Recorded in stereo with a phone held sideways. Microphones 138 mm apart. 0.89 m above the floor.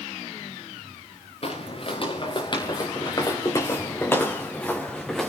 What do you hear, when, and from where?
1.4 s footsteps: 45° left (ahead or behind), 3.5 m; by 5.3 s centre (ahead or behind), 3 m